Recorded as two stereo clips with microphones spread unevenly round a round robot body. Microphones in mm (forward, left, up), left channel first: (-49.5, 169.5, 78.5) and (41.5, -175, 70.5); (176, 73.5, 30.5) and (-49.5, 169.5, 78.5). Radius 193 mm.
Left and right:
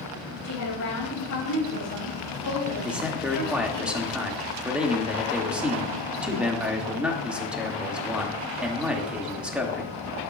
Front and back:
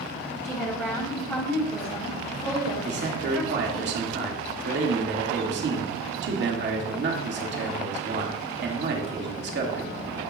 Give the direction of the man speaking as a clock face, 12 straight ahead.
5 o'clock.